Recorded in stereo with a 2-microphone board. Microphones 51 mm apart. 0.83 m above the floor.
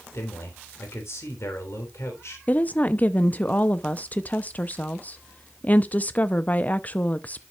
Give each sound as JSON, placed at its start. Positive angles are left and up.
{"t": 0.1, "sound": "a man speaking", "side_deg": 70, "distance_m": 3.0}
{"t": 2.5, "sound": "a woman speaking", "side_deg": 35, "distance_m": 0.6}